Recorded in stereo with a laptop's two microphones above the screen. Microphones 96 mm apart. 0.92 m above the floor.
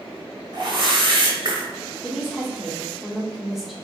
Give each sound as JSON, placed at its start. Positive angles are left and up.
{"t": 0.5, "sound": "a whoosh", "side_deg": -55, "distance_m": 1.1}
{"t": 2.0, "sound": "a woman speaking", "side_deg": -5, "distance_m": 0.9}